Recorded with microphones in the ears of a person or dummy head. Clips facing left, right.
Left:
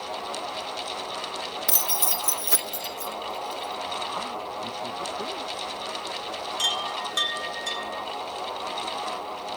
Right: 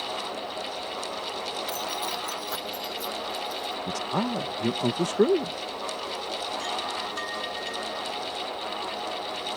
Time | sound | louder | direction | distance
1.7 | keys jangling | even | 60° left (ahead or behind) | ?
3.9 | a man speaking | right 5 dB | 75° right (ahead or behind) | ?
6.6 | a chime | even | 50° left (ahead or behind) | ?